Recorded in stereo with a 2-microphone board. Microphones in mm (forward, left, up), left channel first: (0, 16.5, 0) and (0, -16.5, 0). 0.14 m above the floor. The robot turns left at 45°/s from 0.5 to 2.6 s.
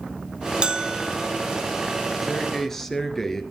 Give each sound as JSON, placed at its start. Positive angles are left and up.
{"t": 0.6, "sound": "a bell", "side_deg": -30, "distance_m": 0.6}
{"t": 2.2, "sound": "a man speaking", "side_deg": -5, "distance_m": 2.5}